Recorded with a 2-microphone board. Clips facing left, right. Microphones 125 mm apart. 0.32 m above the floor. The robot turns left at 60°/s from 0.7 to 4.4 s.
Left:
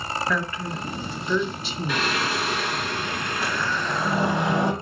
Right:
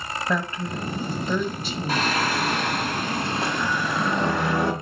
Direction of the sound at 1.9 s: 50° right.